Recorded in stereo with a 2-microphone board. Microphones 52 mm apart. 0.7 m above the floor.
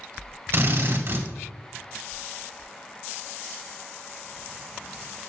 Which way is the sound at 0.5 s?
45° right (ahead or behind).